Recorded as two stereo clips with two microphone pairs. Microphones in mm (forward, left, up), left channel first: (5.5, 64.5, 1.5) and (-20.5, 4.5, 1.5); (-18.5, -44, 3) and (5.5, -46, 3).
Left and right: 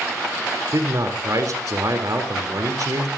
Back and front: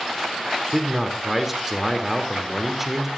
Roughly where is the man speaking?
Right.